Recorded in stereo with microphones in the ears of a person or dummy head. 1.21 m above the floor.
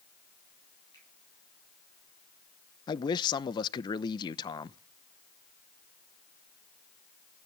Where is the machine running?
I don't hear a machine running.